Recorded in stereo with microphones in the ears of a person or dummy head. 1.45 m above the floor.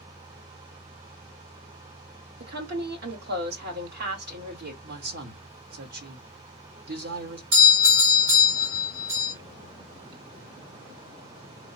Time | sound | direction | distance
2.4 | a woman speaking | 55° right (ahead or behind) | 1.3 m
4.8 | a man speaking | 55° right (ahead or behind) | 1.2 m
7.5 | a doorbell | 60° right (ahead or behind) | 2.5 m